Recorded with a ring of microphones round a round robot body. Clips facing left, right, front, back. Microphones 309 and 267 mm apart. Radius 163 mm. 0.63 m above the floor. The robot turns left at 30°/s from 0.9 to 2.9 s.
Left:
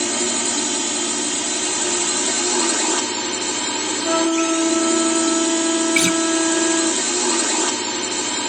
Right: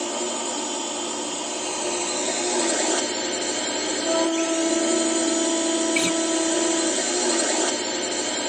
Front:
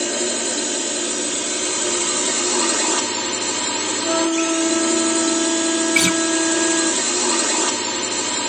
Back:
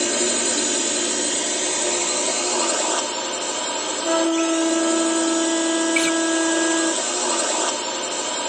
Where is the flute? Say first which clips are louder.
Left 5 dB, even; 85° left.